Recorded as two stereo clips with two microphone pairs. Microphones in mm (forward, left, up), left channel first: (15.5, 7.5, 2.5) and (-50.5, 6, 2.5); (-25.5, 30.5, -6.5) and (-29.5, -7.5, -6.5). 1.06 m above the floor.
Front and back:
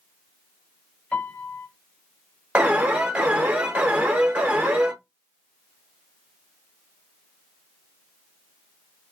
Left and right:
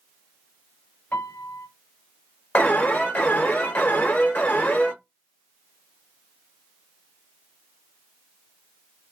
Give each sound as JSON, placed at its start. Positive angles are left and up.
{"t": 1.1, "sound": "a piano", "azimuth_deg": 65, "distance_m": 1.0}
{"t": 2.5, "sound": "an alarm", "azimuth_deg": 115, "distance_m": 1.1}